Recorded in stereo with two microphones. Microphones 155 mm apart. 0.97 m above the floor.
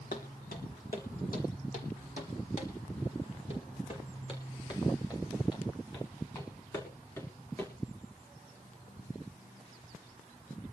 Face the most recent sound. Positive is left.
turn(degrees=20)  # may be behind; listen again after turning